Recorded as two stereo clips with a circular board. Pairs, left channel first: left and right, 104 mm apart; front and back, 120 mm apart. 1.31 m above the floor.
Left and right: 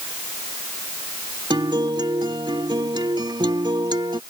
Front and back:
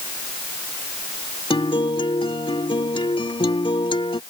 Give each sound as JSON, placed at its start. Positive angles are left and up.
{"t": 1.5, "sound": "a guitar", "azimuth_deg": -45}